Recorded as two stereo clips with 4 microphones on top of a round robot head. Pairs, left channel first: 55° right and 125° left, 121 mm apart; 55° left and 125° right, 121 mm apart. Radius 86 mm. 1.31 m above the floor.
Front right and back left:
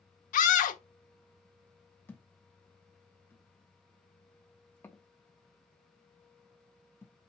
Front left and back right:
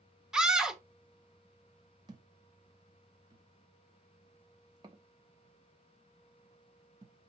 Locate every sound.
0.3 s a scream: 40° right, 1.0 m
2.1 s a thud: 115° right, 0.8 m